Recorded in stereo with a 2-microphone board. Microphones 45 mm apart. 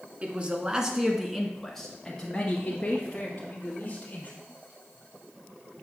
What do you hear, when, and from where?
0.2 s a man speaking: 30° right (ahead or behind), 1.2 m; by 4.3 s 35° left (ahead or behind), 2.5 m